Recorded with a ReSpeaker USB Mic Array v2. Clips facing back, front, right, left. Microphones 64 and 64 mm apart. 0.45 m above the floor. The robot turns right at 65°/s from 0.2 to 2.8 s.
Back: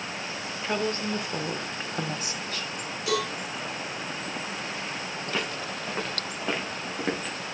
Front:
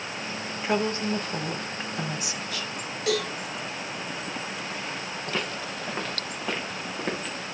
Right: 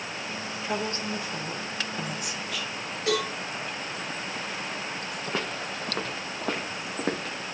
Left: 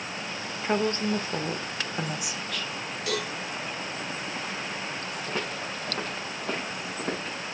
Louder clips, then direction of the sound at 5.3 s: Even, right 2 dB; 90° right.